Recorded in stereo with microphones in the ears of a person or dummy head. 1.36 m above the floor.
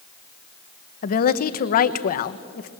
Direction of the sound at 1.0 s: 50° left (ahead or behind).